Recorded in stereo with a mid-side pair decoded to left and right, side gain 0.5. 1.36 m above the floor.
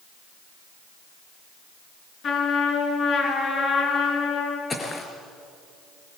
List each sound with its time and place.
2.2 s a trumpet: 60° left, 8.5 m
4.7 s footsteps: 25° left, 5 m